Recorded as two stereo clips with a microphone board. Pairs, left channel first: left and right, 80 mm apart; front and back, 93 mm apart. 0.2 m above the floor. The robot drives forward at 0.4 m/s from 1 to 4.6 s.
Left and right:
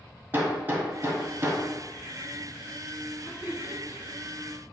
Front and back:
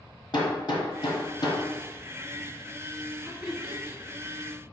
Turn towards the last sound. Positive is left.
turn(degrees=125)